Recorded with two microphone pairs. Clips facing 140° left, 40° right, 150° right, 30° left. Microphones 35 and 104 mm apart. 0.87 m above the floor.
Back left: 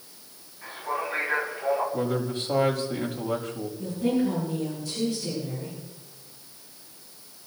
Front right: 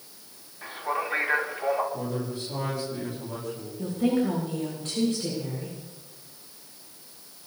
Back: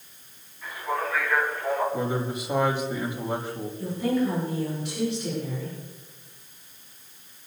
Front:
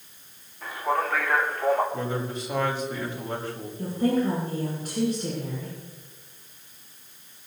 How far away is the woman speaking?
About 8.5 m.